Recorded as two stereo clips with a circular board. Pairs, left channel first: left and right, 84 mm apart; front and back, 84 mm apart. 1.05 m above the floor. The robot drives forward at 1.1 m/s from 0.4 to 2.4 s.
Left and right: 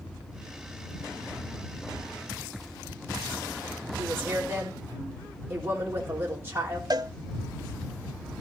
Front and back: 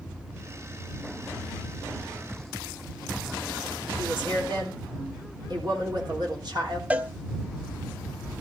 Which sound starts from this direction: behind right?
A woman speaking, at 4.0 s.